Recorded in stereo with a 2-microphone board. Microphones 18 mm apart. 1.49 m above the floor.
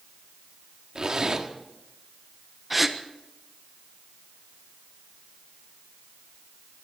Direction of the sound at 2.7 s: 10° right (ahead or behind).